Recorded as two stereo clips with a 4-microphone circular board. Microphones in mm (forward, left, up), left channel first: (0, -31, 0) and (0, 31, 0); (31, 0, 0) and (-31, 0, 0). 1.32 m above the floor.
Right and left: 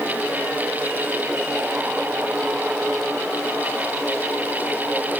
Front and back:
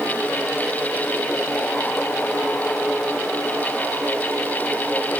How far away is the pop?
I don't hear a pop.